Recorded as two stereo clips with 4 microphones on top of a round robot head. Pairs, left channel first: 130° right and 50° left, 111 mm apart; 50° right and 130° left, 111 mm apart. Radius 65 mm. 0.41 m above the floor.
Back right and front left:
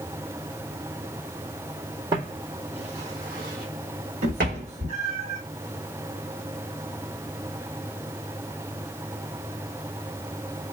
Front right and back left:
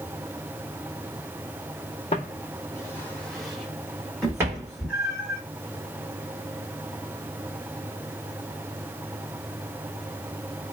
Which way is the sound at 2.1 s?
10° right.